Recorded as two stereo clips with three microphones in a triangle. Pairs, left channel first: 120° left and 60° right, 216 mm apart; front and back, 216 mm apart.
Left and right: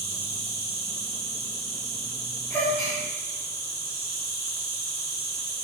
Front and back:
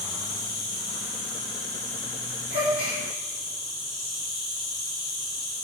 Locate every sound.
0.0 s an insect: 5° right, 1.2 m
2.5 s a gasp: 160° right, 1.4 m